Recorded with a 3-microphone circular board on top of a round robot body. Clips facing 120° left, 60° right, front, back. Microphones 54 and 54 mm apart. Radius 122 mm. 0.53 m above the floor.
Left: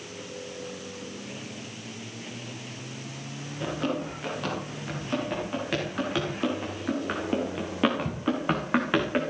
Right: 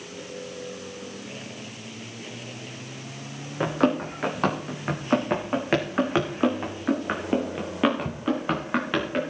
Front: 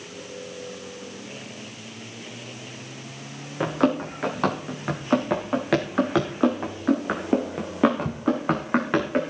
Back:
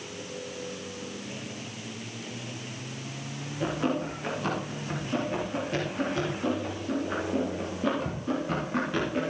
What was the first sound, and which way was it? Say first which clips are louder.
Running footsteps: right 7 dB, front 6 dB; 25° right.